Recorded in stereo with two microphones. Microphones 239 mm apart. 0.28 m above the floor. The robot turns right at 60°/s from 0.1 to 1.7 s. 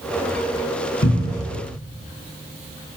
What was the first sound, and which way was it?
A cupboard door, 70° left (ahead or behind).